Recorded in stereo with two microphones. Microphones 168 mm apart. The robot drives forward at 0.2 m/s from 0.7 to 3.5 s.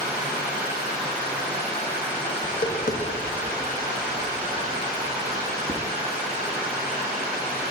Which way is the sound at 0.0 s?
70° right (ahead or behind).